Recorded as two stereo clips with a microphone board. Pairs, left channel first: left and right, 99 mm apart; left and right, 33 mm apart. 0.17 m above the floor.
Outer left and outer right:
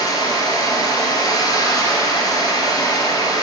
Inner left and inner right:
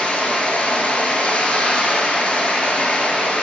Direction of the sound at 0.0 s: 40° left (ahead or behind).